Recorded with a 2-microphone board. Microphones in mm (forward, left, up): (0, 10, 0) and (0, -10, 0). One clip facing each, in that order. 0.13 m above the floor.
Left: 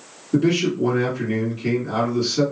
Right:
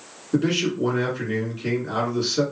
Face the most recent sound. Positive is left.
turn(degrees=-15)  # may be behind; listen again after turning